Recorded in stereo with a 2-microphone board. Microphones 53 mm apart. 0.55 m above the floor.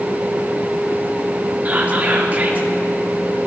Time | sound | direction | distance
1.6 | whispering | 30° right (ahead or behind) | 0.8 m